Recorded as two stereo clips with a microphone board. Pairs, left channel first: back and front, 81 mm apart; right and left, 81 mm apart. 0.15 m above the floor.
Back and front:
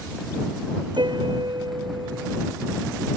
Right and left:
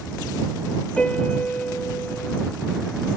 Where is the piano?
15° right.